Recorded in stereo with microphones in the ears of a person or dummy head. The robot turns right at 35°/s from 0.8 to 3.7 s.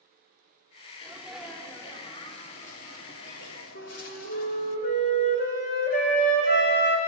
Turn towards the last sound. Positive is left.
turn(degrees=50)  # may be behind; listen again after turning